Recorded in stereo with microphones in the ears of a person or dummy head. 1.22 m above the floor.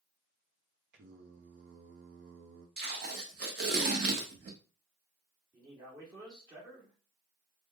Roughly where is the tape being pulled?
Right.